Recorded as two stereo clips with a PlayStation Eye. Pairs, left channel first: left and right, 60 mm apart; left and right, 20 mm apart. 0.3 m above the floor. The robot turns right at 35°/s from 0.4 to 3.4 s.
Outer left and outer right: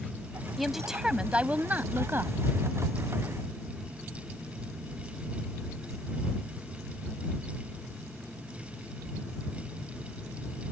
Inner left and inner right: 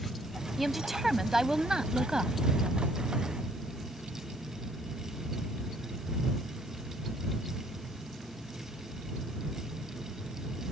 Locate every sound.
0.6 s a woman speaking: straight behind; by 2.3 s 120° right